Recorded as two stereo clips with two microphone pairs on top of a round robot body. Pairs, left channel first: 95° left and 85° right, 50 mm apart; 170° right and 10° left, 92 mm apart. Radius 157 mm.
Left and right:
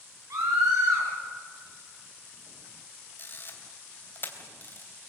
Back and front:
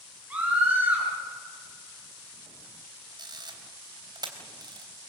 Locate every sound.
0.3 s a scream: 65° right, 7 m
3.2 s a camera shutter: 55° left, 3.5 m